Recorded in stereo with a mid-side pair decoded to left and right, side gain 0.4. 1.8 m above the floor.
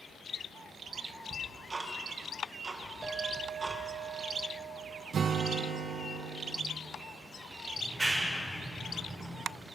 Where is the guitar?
60° right, 1.3 m.